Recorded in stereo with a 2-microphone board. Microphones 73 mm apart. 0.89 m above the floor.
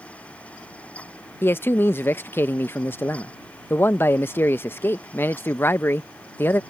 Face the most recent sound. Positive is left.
turn(degrees=30)  # may be behind; listen again after turning